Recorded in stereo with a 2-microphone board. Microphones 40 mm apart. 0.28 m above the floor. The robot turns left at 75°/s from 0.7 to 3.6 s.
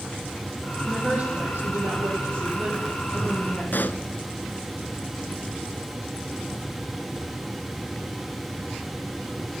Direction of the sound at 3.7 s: 50° left (ahead or behind).